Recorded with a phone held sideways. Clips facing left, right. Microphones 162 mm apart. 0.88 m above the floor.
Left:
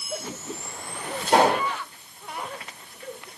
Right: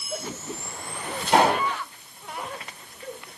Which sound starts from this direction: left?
A pop, at 1.3 s.